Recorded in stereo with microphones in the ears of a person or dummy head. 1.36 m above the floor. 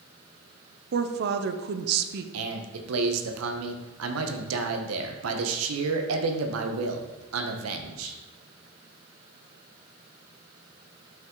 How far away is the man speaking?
About 0.9 m.